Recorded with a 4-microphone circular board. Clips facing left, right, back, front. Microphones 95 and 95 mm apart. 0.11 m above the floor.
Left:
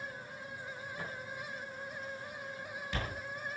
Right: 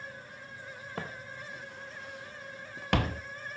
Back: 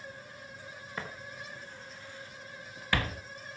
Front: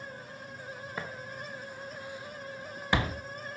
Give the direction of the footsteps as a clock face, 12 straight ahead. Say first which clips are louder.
Right 4 dB, even; 3 o'clock.